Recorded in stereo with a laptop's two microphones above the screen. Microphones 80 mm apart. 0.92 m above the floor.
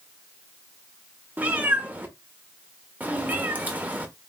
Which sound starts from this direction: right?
A cat meowing, at 1.4 s.